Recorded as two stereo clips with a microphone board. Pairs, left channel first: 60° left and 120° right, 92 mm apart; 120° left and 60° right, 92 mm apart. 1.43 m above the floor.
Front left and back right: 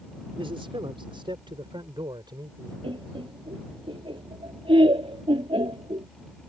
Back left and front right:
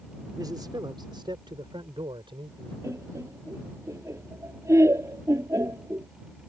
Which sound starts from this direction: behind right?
Laughter, at 2.8 s.